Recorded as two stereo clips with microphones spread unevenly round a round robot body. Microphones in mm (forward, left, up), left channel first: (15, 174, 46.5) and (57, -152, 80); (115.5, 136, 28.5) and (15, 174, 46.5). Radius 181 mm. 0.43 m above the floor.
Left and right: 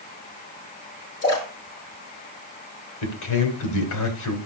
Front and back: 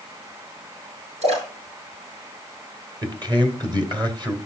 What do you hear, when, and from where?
1.2 s a splash: 145° left, 6.5 m
3.0 s a man speaking: 110° left, 3 m